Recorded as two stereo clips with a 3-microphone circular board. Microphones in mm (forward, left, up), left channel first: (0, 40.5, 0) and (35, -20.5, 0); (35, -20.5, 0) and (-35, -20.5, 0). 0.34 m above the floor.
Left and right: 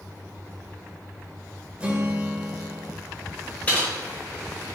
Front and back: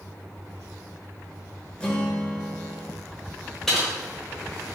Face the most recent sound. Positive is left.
turn(degrees=75)